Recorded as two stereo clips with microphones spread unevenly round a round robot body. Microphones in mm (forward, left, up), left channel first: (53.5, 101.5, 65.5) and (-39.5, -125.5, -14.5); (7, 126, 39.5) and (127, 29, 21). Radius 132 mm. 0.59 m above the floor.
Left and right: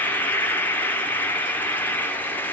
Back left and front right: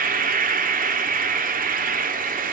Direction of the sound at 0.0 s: 25° right.